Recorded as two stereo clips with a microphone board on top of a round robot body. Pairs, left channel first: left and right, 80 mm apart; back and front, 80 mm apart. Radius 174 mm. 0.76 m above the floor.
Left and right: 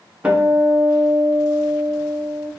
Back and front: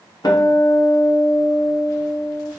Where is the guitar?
165° right, 0.9 m.